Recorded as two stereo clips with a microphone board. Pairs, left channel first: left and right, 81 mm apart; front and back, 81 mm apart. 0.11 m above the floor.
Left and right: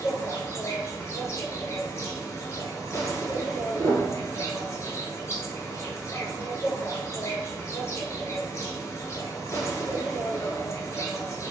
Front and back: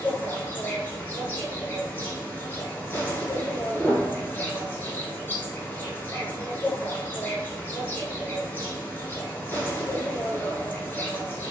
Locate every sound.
0.0 s an insect: 55° left, 0.7 m
3.8 s a piano: 100° right, 1.0 m